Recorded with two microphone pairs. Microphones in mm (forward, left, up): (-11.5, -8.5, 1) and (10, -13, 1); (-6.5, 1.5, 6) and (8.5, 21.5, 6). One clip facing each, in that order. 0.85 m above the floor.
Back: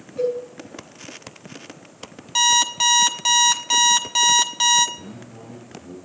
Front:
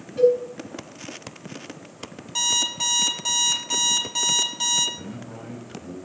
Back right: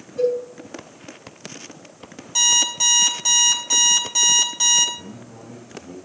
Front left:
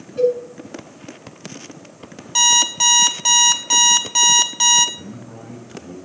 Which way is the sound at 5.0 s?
Straight ahead.